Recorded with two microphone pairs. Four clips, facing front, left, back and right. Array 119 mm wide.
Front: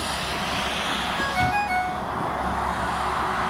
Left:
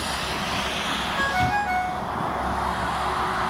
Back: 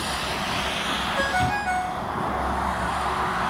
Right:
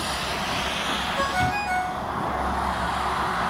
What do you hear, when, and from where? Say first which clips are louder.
1.2 s a ringtone: left 2 dB, front 1 dB; 175° left, 7 m